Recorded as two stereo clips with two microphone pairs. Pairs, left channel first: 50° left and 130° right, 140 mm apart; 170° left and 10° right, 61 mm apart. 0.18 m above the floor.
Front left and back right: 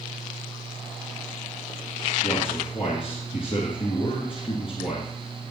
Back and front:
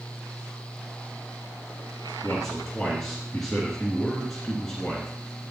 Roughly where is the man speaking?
Left.